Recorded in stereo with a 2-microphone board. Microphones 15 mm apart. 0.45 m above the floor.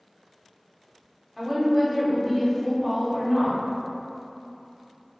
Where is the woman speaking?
5° right (ahead or behind), 0.8 m.